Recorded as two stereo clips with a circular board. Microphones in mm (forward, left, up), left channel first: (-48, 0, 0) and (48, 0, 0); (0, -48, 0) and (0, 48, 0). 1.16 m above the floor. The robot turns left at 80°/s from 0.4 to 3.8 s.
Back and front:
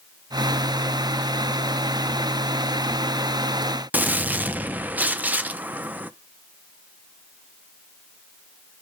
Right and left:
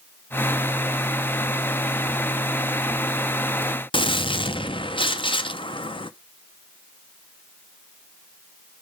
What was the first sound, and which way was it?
A gunshot, 70° right.